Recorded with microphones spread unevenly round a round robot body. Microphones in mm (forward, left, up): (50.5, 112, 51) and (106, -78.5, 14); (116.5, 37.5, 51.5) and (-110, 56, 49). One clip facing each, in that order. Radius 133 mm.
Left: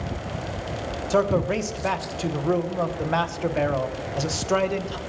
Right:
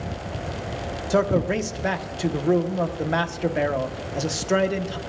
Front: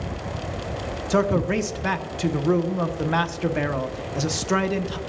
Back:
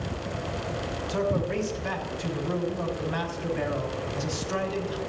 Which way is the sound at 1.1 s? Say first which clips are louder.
Right 1 dB, front 6 dB; straight ahead.